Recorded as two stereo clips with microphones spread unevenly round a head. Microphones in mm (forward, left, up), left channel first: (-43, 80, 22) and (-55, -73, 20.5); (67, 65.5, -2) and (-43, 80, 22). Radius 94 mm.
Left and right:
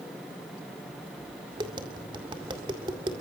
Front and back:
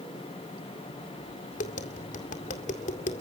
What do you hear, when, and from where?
1.6 s tapping: 30° right, 1.9 m